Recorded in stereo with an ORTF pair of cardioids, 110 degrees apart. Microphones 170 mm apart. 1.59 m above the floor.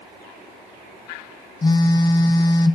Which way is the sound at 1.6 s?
25° left.